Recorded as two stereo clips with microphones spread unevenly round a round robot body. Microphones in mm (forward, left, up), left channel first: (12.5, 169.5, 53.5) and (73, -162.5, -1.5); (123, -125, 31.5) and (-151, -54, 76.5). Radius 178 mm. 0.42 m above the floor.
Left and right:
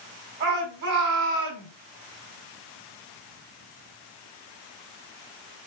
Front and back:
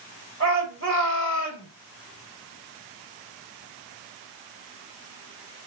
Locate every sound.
0.4 s a shout: 150° right, 3.5 m